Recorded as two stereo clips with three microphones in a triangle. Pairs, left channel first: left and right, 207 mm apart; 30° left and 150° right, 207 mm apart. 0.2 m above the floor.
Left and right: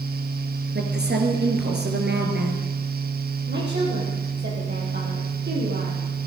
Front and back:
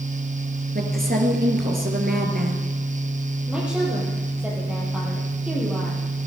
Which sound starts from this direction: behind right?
A woman speaking, at 0.8 s.